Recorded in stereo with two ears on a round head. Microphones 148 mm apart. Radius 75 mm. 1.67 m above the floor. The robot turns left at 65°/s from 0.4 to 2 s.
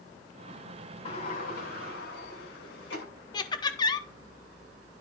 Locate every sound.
1.1 s a sliding door: 140° left, 8 m; by 3.0 s 80° left, 8 m
3.3 s laughter: 25° left (ahead or behind), 1.2 m